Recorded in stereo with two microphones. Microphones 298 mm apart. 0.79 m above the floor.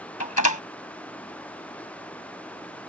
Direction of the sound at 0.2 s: 75° left (ahead or behind).